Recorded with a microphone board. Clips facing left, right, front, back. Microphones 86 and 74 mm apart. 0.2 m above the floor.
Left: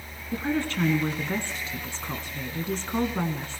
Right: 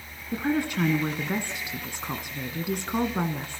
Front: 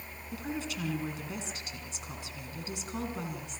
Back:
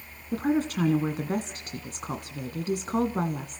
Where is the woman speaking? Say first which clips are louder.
Right 1 dB, back 12 dB; 160° right, 1.5 m.